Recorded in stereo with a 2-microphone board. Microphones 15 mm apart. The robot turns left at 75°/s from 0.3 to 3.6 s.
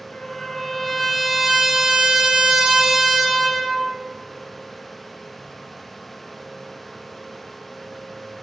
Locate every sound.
0.1 s a trumpet: 65° left, 0.9 m; by 3.9 s 175° left, 0.9 m